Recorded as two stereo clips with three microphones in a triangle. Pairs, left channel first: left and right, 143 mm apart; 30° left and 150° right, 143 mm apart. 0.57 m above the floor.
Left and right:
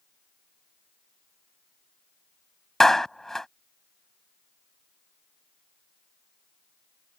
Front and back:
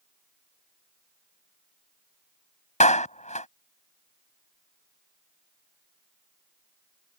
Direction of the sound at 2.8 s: 5° left.